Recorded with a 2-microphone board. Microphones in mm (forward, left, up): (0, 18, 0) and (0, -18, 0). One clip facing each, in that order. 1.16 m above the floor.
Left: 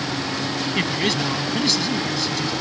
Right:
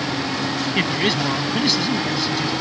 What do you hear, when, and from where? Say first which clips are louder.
0.8 s a man speaking: right 2 dB; 10° right (ahead or behind)